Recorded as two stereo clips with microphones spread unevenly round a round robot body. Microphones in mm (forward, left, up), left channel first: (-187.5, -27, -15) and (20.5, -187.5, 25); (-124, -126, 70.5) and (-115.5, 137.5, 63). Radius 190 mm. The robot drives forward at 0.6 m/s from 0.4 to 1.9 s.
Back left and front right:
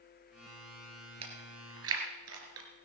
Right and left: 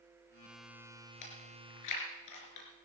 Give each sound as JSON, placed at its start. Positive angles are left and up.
{"t": 1.2, "sound": "chewing", "azimuth_deg": -65, "distance_m": 3.5}